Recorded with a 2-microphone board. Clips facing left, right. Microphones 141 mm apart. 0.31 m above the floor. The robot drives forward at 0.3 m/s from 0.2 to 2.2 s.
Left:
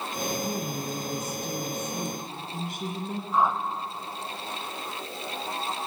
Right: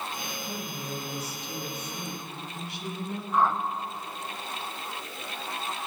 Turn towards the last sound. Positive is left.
turn(degrees=15)  # may be behind; listen again after turning